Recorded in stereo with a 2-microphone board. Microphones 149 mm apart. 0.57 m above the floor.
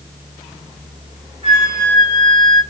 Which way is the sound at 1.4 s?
40° right (ahead or behind).